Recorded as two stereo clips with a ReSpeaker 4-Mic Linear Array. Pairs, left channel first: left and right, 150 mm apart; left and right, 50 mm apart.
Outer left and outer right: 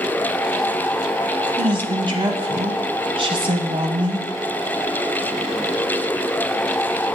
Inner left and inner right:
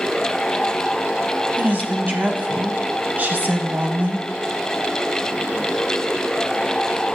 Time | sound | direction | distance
1.6 | a woman speaking | 40° right (ahead or behind) | 1.3 m